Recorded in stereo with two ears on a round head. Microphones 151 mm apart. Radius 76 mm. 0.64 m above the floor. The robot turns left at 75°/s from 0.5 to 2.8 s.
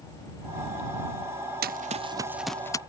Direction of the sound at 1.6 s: 60° right (ahead or behind).